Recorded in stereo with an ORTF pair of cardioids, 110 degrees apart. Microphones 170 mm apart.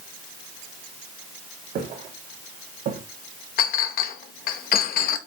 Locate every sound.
1.8 s footsteps: 65° right, 4.5 m; by 3.0 s 60° right, 3.5 m
3.6 s a clink: 60° left, 0.9 m